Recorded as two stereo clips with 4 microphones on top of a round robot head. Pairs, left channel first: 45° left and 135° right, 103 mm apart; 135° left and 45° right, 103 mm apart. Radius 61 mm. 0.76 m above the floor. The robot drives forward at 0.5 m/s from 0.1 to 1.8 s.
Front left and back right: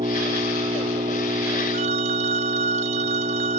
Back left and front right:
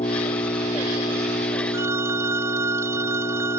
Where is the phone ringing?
110° right; by 3.6 s 115° right.